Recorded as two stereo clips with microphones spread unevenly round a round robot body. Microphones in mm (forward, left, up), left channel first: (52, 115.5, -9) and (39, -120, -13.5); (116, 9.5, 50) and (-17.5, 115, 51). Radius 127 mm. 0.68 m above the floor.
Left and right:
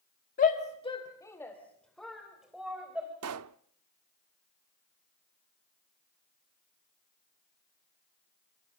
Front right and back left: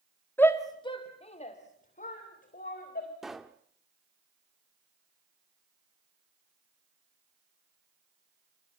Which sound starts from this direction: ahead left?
A shout, at 0.4 s.